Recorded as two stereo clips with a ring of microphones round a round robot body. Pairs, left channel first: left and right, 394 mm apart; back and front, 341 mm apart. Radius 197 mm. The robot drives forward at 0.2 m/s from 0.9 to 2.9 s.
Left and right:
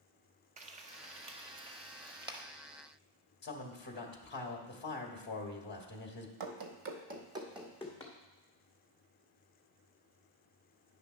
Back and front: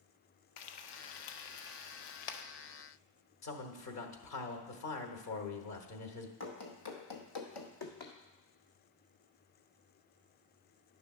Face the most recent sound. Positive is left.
turn(degrees=170)